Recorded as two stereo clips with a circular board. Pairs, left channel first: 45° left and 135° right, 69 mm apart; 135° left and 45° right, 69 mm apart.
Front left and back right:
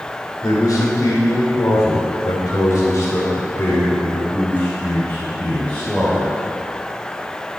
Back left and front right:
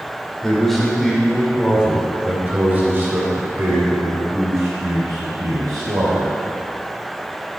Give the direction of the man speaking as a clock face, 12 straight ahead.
10 o'clock.